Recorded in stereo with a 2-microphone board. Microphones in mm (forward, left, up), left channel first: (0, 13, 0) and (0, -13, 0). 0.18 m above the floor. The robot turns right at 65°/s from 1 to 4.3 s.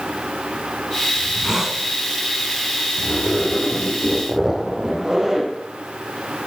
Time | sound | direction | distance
1.2 | a hiss | 55° right | 1.9 m
3.0 | a zipper | 110° left | 4.5 m